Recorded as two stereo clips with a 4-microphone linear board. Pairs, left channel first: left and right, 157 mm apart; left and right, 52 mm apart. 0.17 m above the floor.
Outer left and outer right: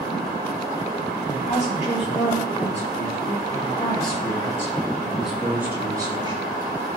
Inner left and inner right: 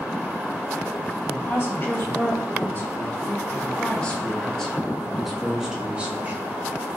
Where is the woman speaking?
45° left (ahead or behind), 5 m; by 6.6 s 35° right (ahead or behind), 2 m.